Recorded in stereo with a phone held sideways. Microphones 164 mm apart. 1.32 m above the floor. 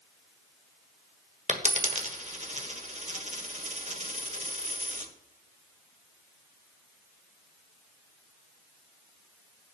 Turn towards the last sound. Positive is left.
turn(degrees=-45)  # may be behind; listen again after turning